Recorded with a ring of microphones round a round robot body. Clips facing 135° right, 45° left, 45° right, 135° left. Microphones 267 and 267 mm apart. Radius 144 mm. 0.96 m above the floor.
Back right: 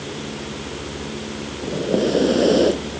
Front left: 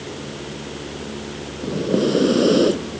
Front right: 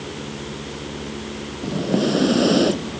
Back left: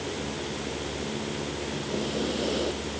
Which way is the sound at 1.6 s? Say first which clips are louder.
Front left 1 dB, front right 14 dB; 30° right.